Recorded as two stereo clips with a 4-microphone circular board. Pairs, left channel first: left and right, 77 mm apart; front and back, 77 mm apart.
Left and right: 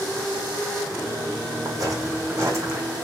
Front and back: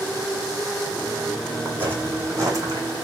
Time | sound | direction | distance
1.6 | footsteps | 120° right | 1.9 m